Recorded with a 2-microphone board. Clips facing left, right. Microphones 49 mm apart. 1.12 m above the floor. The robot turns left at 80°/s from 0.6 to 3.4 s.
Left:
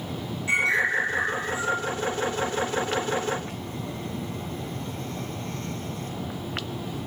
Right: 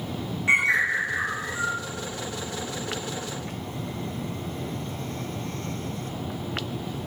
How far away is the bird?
About 1.9 m.